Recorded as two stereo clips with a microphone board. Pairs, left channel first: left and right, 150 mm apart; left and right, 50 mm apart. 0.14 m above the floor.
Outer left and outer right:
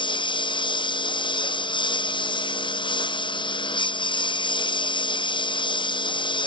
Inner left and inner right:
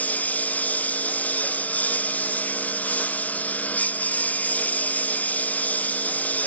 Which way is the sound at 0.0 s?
30° left (ahead or behind).